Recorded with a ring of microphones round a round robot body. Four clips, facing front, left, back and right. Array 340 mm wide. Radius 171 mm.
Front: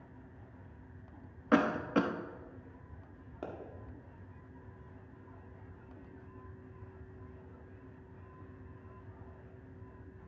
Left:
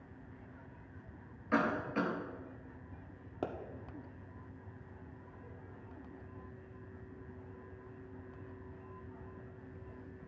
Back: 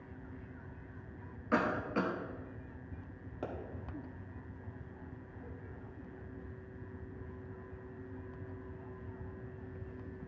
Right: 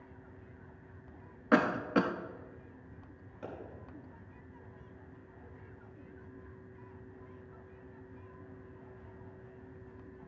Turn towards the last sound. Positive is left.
turn(degrees=90)